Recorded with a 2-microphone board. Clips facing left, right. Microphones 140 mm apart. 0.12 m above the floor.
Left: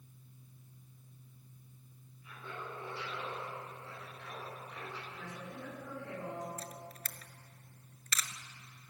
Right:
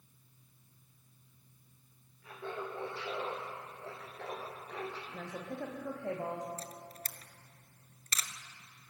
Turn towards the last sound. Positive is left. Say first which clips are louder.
# even
turn(degrees=-35)  # may be behind; listen again after turning